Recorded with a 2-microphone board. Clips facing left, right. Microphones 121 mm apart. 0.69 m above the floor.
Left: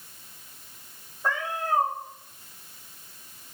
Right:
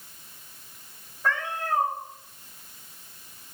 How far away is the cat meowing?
About 5 m.